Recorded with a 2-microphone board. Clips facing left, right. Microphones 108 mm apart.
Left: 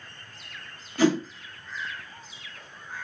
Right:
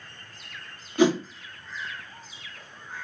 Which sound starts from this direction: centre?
A whoosh, at 1.0 s.